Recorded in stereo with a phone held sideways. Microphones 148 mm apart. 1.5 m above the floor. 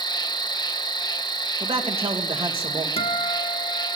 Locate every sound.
0.0 s an insect: 30° left (ahead or behind), 1.0 m
1.6 s a man speaking: 40° right (ahead or behind), 2.5 m
3.0 s a guitar: 45° left (ahead or behind), 1.5 m